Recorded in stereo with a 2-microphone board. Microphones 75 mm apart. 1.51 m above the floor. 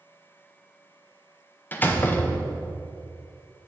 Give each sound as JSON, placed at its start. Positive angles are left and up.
{"t": 1.7, "sound": "a door slam", "side_deg": 25, "distance_m": 0.7}